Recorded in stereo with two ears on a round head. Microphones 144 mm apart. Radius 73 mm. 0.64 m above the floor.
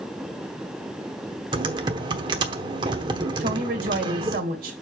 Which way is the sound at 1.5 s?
30° right (ahead or behind).